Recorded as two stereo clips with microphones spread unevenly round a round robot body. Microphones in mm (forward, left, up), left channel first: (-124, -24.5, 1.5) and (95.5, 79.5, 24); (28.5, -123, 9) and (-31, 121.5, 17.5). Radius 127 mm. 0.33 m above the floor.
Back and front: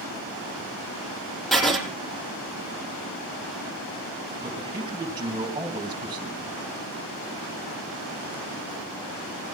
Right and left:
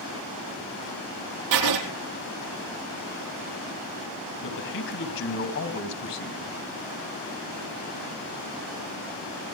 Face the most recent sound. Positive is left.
turn(degrees=-50)